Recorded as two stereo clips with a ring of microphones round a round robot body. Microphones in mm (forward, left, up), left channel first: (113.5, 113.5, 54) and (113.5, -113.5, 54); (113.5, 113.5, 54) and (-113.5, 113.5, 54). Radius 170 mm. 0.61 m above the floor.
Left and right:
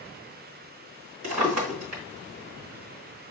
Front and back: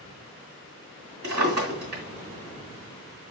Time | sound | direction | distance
1.2 | a drawer | 115° right | 1.9 m